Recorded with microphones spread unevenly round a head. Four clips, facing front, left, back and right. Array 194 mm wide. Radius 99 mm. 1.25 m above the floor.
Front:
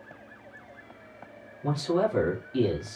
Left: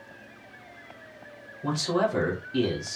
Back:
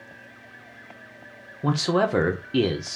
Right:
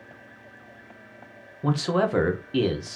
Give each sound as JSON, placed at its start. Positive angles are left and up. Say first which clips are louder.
{"t": 1.6, "sound": "a man speaking", "louder": "right 2 dB, back 3 dB", "azimuth_deg": -165, "distance_m": 0.9}